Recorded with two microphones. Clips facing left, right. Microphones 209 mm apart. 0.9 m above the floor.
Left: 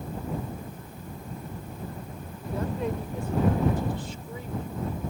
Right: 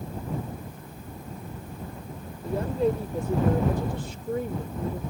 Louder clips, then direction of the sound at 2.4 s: Right 5 dB; 30° right (ahead or behind).